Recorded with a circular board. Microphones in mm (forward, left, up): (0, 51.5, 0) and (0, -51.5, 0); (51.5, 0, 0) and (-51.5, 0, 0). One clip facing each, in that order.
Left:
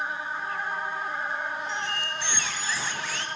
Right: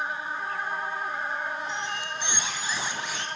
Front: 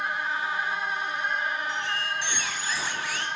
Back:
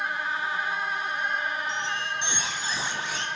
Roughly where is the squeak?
Behind right.